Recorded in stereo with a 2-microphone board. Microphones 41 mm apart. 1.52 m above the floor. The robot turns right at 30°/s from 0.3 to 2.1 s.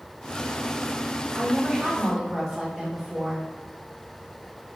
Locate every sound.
1.4 s a woman speaking: 30° right (ahead or behind), 1.5 m; by 3.5 s 10° right (ahead or behind), 1.5 m